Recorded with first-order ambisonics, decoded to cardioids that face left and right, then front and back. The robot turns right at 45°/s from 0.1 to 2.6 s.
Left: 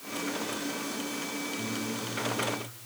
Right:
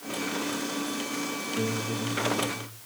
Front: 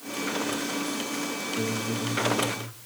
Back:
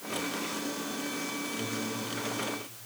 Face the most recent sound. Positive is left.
turn(degrees=0)